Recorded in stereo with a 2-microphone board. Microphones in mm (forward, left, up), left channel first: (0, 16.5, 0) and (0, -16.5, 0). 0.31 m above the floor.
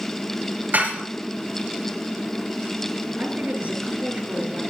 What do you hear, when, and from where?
0.7 s dishes clattering: 65° right (ahead or behind), 4.5 m
3.2 s a woman speaking: 50° right (ahead or behind), 4.5 m